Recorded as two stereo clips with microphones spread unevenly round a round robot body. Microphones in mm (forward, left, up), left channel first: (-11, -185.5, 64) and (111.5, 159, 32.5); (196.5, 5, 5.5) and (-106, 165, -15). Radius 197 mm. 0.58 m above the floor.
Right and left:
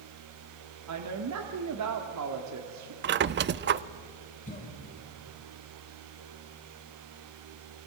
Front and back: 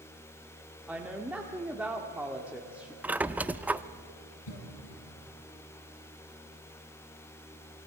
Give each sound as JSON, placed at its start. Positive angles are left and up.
{"t": 0.9, "sound": "a woman speaking", "azimuth_deg": 70, "distance_m": 1.6}
{"t": 3.0, "sound": "a squeak", "azimuth_deg": 75, "distance_m": 0.5}
{"t": 4.5, "sound": "a cough", "azimuth_deg": -40, "distance_m": 4.0}